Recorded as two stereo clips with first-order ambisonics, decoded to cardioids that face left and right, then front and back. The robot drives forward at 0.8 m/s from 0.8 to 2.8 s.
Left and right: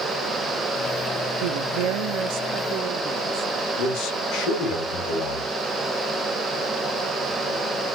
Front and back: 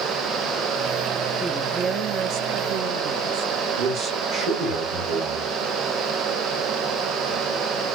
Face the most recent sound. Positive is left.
turn(degrees=130)